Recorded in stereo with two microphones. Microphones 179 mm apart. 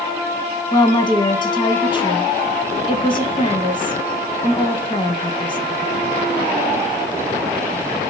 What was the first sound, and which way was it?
A woman speaking, 25° left (ahead or behind).